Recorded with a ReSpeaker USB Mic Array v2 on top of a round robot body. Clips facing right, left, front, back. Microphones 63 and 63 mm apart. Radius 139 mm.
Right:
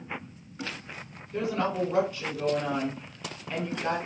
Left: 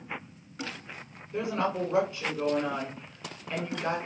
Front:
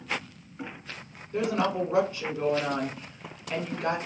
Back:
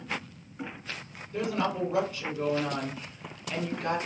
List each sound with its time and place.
1.3 s a woman speaking: 20° left, 1.6 m